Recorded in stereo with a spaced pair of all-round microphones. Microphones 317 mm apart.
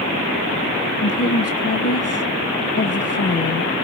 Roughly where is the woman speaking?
Left.